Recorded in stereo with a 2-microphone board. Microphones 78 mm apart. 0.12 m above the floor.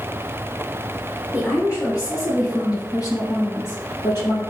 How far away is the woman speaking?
About 2.5 m.